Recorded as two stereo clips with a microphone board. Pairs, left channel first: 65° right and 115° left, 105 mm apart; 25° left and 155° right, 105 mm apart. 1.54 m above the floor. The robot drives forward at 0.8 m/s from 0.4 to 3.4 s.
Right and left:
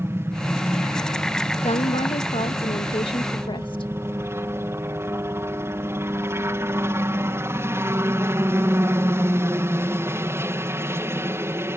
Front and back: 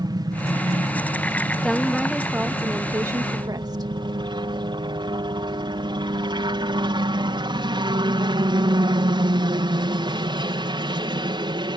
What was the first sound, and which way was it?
A helicopter, 170° left.